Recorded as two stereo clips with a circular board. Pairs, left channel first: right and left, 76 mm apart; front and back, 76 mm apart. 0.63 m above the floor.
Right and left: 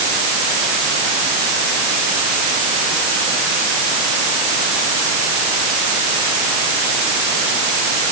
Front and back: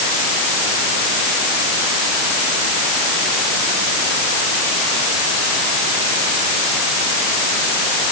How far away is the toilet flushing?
I don't hear a toilet flushing.